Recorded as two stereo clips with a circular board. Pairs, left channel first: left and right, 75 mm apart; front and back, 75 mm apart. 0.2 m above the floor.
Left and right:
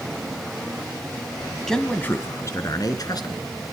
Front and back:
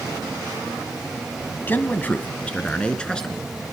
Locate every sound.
1.7 s a man speaking: 10° left, 1.1 m; by 3.5 s 80° left, 2.5 m